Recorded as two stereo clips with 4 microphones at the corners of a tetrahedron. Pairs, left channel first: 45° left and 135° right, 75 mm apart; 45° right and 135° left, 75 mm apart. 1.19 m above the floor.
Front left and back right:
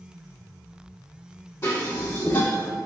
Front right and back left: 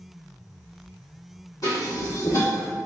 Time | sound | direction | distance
1.6 | dishes clattering | 5° right | 1.8 m